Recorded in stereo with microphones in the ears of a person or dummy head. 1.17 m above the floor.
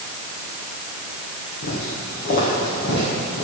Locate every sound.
1.6 s footsteps: 55° left (ahead or behind), 3 m; by 3.5 s 25° left (ahead or behind), 3 m